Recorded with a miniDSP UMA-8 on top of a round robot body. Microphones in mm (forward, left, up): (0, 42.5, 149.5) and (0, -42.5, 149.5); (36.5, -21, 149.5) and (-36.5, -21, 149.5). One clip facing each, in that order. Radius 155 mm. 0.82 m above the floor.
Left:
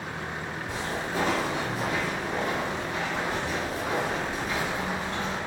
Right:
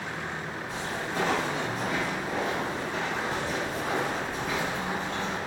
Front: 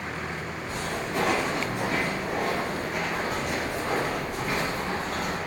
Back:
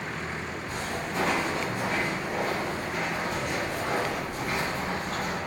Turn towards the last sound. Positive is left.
turn(degrees=-55)